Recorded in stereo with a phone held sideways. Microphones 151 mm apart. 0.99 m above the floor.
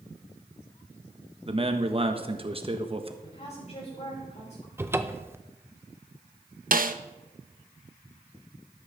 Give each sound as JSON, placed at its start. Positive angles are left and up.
{"t": 1.4, "sound": "a man speaking", "side_deg": -40, "distance_m": 1.3}
{"t": 3.2, "sound": "a woman speaking", "side_deg": 50, "distance_m": 5.0}
{"t": 4.8, "sound": "a cupboard door", "side_deg": -15, "distance_m": 0.6}
{"t": 6.7, "sound": "a snare drum", "side_deg": -70, "distance_m": 0.7}